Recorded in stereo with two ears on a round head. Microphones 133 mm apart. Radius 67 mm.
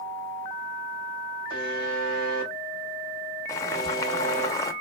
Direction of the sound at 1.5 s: 65° right (ahead or behind).